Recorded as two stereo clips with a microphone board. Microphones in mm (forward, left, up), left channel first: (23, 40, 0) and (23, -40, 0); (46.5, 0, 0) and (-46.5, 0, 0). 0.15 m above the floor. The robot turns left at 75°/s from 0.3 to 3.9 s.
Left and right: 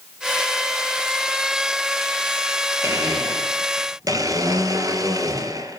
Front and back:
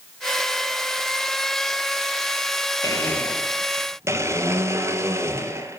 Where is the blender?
40° right, 3 m; by 5.8 s 120° right, 3 m.